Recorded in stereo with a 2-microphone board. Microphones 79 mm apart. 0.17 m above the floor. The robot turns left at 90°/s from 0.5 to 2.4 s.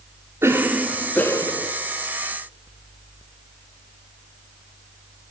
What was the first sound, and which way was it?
A cough, 145° right.